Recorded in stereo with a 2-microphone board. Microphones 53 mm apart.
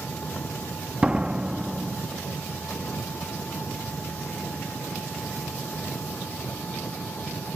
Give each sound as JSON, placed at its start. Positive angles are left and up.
{"t": 0.0, "sound": "an engine running", "side_deg": 35}
{"t": 1.0, "sound": "a door slam", "side_deg": -20}